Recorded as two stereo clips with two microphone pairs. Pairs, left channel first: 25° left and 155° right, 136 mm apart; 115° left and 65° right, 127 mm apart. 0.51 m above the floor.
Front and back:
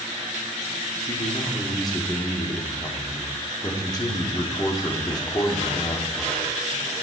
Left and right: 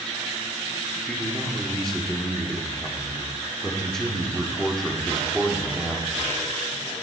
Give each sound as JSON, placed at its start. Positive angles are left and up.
{"t": 1.1, "sound": "a man speaking", "azimuth_deg": 30, "distance_m": 1.4}